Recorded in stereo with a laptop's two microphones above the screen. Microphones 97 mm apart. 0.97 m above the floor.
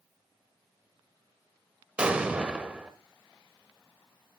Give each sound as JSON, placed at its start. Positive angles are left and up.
{"t": 2.0, "sound": "an explosion", "side_deg": -10, "distance_m": 0.9}